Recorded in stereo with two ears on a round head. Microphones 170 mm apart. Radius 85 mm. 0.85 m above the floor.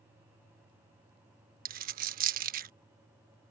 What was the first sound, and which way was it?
A dropped coin, 45° right (ahead or behind).